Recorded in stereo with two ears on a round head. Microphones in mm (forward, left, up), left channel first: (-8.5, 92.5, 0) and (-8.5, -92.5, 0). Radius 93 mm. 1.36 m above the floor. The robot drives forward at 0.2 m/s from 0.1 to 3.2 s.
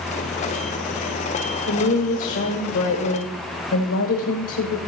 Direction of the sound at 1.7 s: 60° left (ahead or behind).